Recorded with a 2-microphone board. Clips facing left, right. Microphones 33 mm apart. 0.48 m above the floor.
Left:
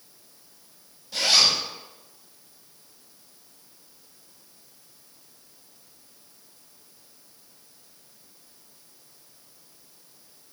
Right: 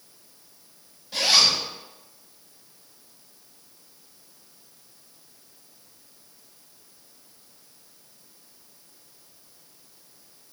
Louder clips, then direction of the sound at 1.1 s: Right 1 dB; 15° right (ahead or behind).